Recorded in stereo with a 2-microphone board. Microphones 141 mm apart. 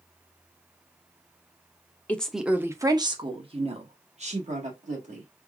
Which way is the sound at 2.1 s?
10° left (ahead or behind).